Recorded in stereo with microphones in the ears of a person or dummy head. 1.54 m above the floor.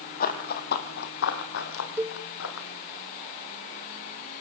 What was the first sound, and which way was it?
Running footsteps, 45° left (ahead or behind).